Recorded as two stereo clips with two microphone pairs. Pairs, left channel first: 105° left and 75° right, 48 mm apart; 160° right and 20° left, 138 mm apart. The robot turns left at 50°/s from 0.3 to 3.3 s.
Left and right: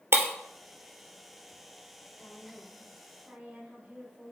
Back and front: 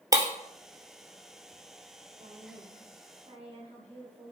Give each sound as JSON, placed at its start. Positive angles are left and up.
{"t": 0.1, "sound": "breaking glass", "azimuth_deg": -45, "distance_m": 2.0}
{"t": 2.2, "sound": "a woman speaking", "azimuth_deg": 55, "distance_m": 1.9}